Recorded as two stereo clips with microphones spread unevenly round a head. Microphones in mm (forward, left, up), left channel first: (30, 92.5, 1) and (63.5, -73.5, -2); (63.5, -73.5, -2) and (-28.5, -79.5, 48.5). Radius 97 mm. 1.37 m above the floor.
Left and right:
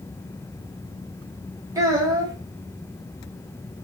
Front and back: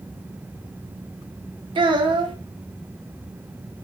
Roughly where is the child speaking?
Behind right.